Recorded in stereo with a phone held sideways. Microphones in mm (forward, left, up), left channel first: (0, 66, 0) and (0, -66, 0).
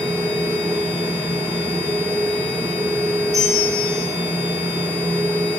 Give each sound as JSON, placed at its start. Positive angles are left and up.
{"t": 0.0, "sound": "a machine running", "side_deg": -15, "distance_m": 3.0}
{"t": 3.3, "sound": "a bell", "side_deg": -30, "distance_m": 3.5}